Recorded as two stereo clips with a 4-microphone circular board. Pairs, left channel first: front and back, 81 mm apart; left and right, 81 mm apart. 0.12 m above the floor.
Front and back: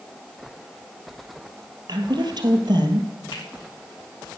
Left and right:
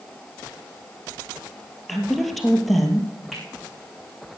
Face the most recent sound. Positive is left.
turn(degrees=0)